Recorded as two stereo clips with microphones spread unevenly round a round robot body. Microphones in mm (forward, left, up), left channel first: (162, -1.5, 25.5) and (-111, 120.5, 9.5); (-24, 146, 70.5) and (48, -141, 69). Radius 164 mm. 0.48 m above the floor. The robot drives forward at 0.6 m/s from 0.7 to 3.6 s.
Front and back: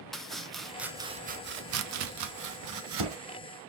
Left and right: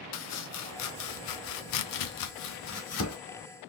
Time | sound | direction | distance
0.1 | chopping | 65° left | 0.8 m